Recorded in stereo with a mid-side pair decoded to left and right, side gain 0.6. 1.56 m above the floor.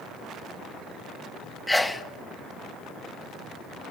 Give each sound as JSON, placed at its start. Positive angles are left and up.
{"t": 1.7, "sound": "a sneeze", "azimuth_deg": 5, "distance_m": 0.9}